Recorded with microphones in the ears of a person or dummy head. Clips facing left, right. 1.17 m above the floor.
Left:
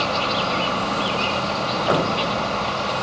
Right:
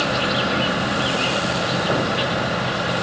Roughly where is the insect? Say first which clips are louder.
Right 2 dB; centre.